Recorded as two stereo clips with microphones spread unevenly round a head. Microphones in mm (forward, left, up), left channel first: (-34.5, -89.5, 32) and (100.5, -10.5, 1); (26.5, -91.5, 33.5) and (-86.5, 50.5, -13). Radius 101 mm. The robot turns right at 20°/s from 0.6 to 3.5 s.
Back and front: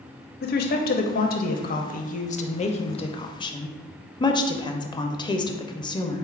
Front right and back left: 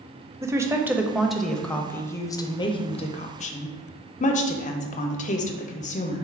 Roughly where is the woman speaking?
Behind right.